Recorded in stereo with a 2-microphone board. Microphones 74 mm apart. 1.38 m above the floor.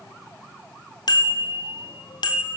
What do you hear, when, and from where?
1.1 s a bicycle bell: 70° left (ahead or behind), 3 m; by 2.6 s 80° left, 3.5 m